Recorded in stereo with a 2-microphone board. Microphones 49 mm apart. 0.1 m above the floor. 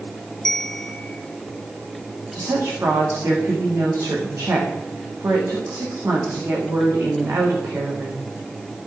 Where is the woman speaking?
60° right (ahead or behind), 8 m.